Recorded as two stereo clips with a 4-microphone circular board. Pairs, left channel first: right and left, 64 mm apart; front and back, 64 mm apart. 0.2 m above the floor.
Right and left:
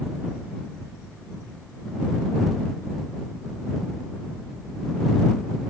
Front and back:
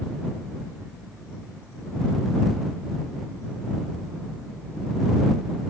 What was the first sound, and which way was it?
Only background noise.